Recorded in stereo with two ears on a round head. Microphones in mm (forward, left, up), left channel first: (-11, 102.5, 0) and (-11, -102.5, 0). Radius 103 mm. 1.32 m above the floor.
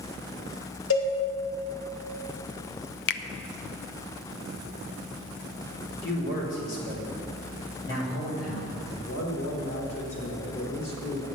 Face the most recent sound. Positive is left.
turn(degrees=70)  # may be behind; listen again after turning